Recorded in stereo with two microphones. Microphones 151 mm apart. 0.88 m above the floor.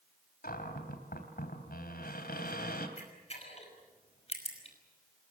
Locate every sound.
0.4 s a cupboard door: 80° left, 3 m
3.0 s a camera shutter: 45° left (ahead or behind), 5.5 m